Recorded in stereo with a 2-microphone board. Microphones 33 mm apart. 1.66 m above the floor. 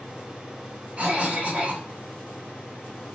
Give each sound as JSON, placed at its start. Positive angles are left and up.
{"t": 1.0, "sound": "a cough", "side_deg": -50, "distance_m": 1.2}